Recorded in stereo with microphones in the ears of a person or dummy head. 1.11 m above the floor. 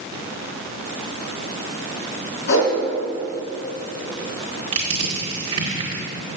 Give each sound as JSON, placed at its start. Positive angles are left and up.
{"t": 2.5, "sound": "a whoosh", "side_deg": 70, "distance_m": 3.5}
{"t": 4.7, "sound": "crushing", "side_deg": -35, "distance_m": 2.0}